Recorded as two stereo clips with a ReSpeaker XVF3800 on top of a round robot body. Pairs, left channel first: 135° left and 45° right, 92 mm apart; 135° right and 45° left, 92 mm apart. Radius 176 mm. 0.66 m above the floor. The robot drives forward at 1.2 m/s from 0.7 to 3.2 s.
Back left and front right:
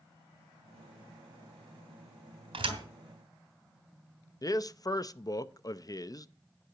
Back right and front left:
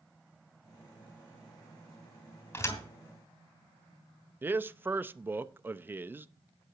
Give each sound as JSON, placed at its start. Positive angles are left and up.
{"t": 2.5, "sound": "a thud", "azimuth_deg": -70, "distance_m": 3.0}
{"t": 4.4, "sound": "a man speaking", "azimuth_deg": 105, "distance_m": 0.8}